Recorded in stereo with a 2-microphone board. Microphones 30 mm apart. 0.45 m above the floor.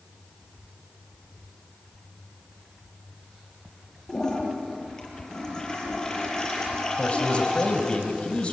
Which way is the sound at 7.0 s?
40° left (ahead or behind).